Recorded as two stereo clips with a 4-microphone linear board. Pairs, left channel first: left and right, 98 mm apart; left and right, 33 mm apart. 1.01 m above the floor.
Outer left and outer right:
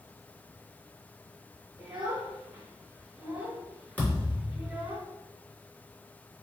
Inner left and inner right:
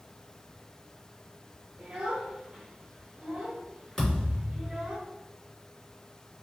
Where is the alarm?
I don't hear an alarm.